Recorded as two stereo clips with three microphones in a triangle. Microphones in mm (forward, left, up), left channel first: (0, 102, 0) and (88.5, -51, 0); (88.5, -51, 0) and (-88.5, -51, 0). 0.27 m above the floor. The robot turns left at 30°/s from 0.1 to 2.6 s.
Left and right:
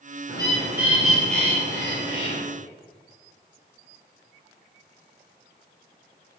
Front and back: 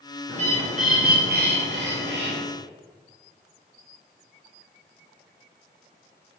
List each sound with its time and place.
0.3 s a bird: 125° right, 2.5 m; by 2.4 s 175° left, 2.5 m